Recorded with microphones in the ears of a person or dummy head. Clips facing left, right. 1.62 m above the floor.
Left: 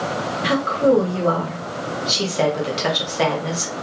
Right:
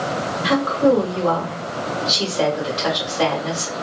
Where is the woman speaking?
30° left (ahead or behind), 1.1 m.